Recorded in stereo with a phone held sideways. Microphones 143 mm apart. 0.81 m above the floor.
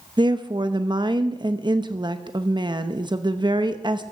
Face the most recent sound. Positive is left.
turn(degrees=-30)  # may be behind; listen again after turning